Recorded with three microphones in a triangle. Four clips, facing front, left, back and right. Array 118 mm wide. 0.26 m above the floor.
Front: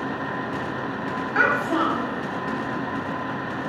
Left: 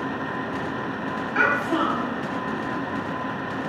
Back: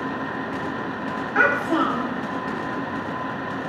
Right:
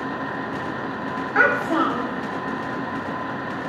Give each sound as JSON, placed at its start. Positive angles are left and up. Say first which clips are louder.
{"t": 1.4, "sound": "a child speaking", "louder": "right 3 dB, back 2 dB", "azimuth_deg": -100, "distance_m": 1.1}